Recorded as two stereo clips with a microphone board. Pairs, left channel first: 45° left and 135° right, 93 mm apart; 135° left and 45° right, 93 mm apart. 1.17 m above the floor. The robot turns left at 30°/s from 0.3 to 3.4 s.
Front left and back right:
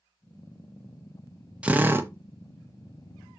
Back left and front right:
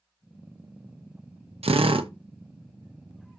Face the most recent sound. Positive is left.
turn(degrees=-110)